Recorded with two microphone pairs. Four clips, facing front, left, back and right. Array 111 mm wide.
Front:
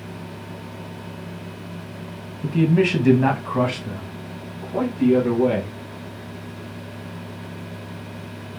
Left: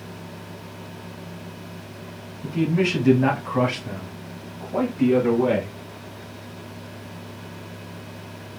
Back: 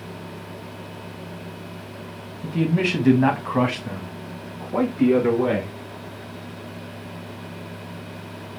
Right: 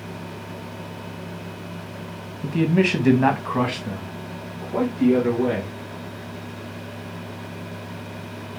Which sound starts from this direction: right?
A man speaking, at 2.4 s.